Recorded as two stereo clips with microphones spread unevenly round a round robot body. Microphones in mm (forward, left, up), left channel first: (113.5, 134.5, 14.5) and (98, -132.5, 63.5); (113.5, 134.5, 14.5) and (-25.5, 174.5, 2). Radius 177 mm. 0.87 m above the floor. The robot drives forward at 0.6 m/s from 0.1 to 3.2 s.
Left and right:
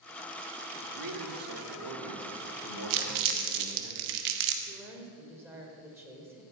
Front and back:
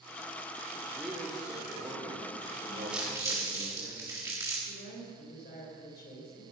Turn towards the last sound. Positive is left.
turn(degrees=-10)